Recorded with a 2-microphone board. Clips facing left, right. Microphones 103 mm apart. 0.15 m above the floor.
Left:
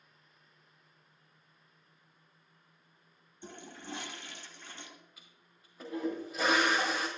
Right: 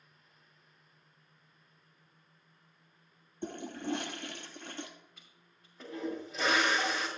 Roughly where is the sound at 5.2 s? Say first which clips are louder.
Even; centre.